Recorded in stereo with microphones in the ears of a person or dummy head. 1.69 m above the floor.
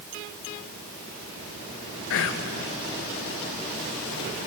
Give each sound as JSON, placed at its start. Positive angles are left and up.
{"t": 2.1, "sound": "whispering", "side_deg": 70, "distance_m": 1.9}